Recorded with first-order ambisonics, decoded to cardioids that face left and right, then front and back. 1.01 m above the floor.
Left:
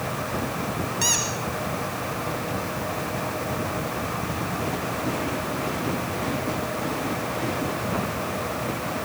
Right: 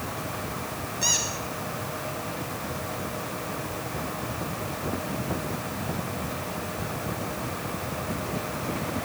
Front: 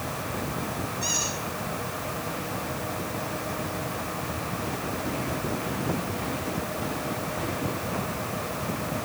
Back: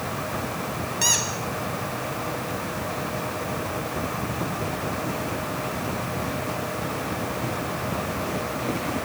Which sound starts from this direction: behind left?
A squeak, at 1.0 s.